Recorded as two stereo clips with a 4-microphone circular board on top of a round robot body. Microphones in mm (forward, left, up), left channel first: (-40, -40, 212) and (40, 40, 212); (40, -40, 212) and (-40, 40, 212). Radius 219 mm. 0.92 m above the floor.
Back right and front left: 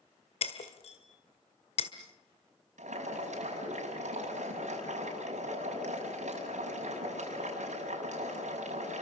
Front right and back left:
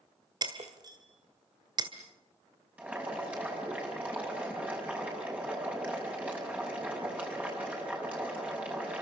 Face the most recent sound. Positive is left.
turn(degrees=55)